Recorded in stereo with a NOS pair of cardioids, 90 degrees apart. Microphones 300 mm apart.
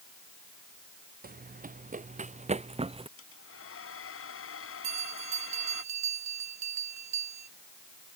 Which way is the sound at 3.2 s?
45° left.